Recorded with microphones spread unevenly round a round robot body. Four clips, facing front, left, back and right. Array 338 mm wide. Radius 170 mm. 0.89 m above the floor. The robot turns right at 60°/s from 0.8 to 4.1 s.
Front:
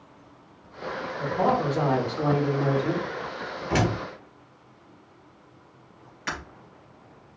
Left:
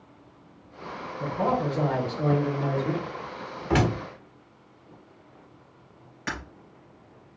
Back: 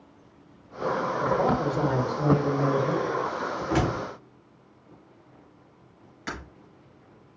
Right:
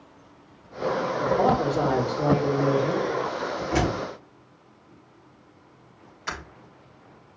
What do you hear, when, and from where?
1.2 s a man speaking: 95° right, 2.5 m; by 3.0 s 15° left, 2.5 m
3.7 s a door slam: 80° left, 1.7 m; by 4.0 s 90° left, 1.7 m
6.3 s breaking glass: 100° left, 3 m